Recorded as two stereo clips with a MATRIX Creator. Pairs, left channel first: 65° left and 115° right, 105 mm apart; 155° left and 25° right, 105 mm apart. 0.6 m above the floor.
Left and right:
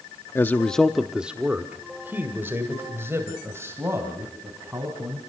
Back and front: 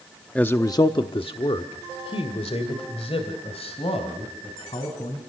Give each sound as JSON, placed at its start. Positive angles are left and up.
{"t": 0.3, "sound": "a man speaking", "azimuth_deg": 90, "distance_m": 0.6}